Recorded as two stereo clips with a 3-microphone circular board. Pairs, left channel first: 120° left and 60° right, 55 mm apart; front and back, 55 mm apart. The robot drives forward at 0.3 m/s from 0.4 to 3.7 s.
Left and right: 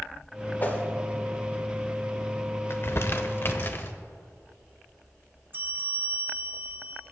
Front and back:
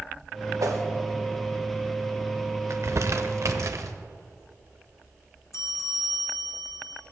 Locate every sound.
0.6 s a whoosh: 175° left, 1.3 m
2.7 s crumpling: 160° left, 0.8 m; by 3.9 s 165° left, 1.1 m
5.5 s a bell: 10° right, 1.5 m